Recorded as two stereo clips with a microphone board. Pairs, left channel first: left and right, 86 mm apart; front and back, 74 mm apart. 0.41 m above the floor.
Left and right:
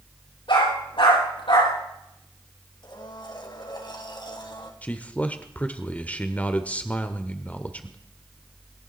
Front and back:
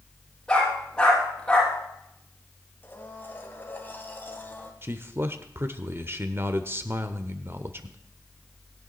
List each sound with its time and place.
0.5 s a dog barking: 80° left, 7 m
2.8 s a blender: 60° left, 2.5 m
4.8 s a man speaking: 155° left, 1.1 m